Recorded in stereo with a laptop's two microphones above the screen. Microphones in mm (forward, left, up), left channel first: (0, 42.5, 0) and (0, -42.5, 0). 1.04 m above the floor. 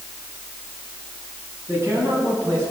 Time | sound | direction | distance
1.7 | a man speaking | 35° right (ahead or behind) | 8.5 m